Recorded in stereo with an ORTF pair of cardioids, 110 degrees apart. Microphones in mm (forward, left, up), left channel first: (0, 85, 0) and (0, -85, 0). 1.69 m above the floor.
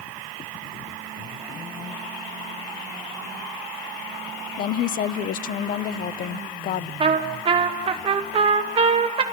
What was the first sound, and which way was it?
A woman speaking, 55° left.